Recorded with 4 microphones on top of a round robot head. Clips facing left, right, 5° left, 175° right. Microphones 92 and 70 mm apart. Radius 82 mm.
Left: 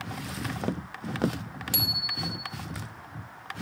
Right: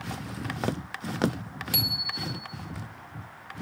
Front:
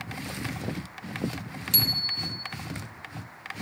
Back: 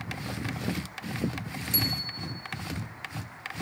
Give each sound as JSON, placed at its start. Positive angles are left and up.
{"t": 1.7, "sound": "a bicycle bell", "azimuth_deg": 30, "distance_m": 3.0}